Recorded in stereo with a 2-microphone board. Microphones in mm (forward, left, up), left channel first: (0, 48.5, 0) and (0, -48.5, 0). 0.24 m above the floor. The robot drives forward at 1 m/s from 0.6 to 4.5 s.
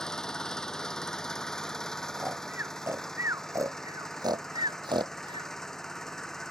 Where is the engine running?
5° left (ahead or behind).